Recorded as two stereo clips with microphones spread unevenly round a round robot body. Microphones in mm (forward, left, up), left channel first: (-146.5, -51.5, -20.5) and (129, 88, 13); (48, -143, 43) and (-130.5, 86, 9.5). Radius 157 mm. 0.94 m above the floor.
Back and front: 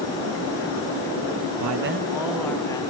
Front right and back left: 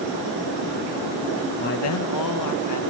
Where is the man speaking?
15° left, 0.7 m; by 2.8 s 75° right, 1.6 m.